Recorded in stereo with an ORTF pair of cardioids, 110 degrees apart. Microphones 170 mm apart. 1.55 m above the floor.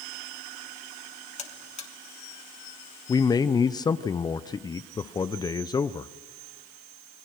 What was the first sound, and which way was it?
A buzzer, 40° left.